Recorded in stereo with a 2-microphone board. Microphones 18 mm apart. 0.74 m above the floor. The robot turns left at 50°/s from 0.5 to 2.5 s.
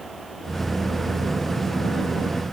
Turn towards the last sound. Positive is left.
No sound to turn to.